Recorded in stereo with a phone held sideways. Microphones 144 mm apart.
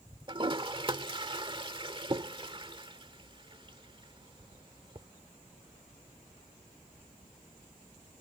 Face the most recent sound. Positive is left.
turn(degrees=-35)  # may be behind; listen again after turning